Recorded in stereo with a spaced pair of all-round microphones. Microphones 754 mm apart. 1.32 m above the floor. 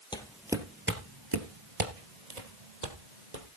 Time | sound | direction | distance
0.1 | footsteps | 5° left (ahead or behind) | 2.0 m